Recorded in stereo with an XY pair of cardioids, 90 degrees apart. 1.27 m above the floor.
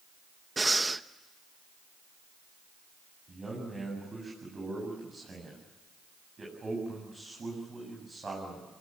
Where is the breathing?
20° right, 0.9 m.